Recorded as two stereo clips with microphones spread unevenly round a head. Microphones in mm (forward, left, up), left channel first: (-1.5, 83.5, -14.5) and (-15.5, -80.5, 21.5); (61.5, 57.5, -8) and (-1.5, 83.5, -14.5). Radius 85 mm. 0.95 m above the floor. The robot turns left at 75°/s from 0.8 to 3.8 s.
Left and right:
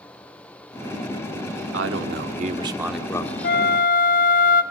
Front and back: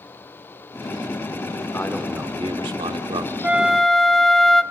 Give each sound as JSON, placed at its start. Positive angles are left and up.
{"t": 1.7, "sound": "a man speaking", "azimuth_deg": -90, "distance_m": 1.9}
{"t": 3.4, "sound": "a flute", "azimuth_deg": 95, "distance_m": 0.9}